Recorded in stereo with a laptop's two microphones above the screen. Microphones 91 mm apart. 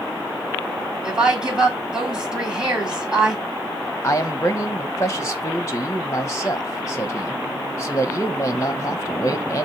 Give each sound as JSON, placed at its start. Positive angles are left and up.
{"t": 1.0, "sound": "a woman speaking", "side_deg": -10, "distance_m": 3.5}
{"t": 4.0, "sound": "a man speaking", "side_deg": 30, "distance_m": 1.1}